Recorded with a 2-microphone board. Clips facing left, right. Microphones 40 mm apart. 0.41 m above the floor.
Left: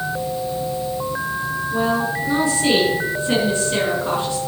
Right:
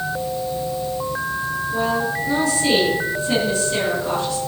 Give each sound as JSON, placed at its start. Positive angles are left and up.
{"t": 1.7, "sound": "a woman speaking", "side_deg": 20, "distance_m": 5.0}